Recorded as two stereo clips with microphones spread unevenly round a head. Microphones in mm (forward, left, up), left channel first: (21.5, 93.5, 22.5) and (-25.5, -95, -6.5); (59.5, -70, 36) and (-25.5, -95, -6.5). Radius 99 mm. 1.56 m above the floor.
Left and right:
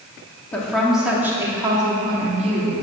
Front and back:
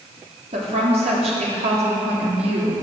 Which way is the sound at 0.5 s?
155° left.